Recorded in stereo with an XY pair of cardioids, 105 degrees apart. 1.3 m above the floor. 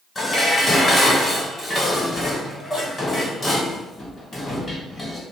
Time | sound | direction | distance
0.1 | dishes clattering | 20° left | 3.5 m